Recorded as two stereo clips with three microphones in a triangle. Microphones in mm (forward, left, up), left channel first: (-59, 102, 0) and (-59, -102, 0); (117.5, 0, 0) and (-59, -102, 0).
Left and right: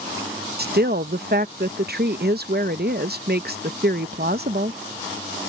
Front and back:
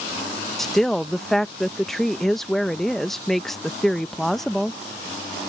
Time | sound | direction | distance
0.6 | a woman speaking | 60° right | ?